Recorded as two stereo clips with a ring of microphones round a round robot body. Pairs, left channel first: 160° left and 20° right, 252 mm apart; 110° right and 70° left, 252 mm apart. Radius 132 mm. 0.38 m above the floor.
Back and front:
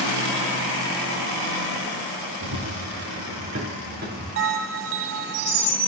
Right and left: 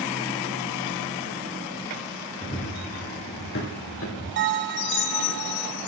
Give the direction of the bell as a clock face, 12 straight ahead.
11 o'clock.